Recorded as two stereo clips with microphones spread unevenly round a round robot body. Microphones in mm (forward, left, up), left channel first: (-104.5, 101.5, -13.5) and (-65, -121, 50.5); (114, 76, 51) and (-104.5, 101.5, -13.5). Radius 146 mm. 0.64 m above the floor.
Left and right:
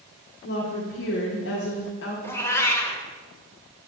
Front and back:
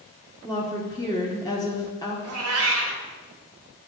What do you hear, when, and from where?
0.4 s a woman speaking: 75° left, 1.3 m
2.2 s a cat meowing: straight behind, 1.2 m